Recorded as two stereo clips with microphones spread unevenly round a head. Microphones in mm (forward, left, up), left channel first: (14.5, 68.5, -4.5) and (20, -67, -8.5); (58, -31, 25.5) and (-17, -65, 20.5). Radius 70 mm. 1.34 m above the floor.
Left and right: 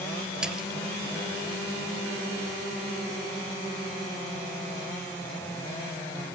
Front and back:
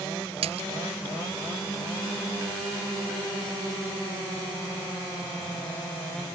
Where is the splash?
175° right.